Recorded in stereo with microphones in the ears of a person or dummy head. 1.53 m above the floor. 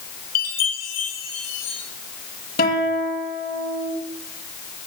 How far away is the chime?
About 3 m.